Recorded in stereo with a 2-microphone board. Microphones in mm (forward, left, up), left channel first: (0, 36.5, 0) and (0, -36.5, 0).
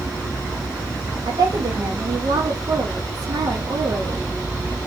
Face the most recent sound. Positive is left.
turn(degrees=-70)  # may be behind; listen again after turning